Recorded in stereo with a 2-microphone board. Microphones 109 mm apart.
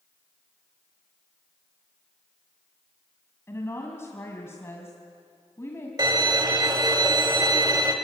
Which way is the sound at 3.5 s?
25° left (ahead or behind).